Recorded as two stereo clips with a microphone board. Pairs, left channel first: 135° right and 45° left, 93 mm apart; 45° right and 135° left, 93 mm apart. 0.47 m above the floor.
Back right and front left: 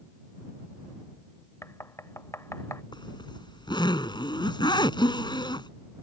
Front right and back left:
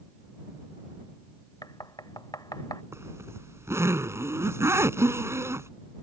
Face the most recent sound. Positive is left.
turn(degrees=-165)